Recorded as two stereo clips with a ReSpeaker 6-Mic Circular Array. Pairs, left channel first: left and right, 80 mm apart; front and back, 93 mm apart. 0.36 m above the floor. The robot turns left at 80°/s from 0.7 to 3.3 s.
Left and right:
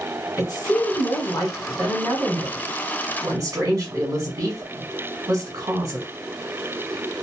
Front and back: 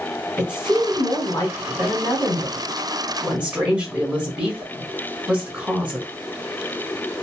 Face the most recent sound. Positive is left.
turn(degrees=-100)